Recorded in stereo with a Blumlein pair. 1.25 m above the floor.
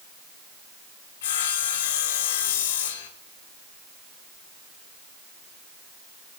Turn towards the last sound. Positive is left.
turn(degrees=55)